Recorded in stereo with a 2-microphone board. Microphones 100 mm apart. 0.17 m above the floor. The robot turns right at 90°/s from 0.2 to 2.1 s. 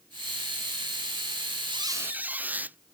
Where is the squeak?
55° right; by 2.8 s 15° right.